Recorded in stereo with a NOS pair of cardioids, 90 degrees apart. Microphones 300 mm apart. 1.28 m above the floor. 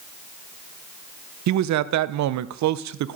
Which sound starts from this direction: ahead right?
A man speaking, at 1.5 s.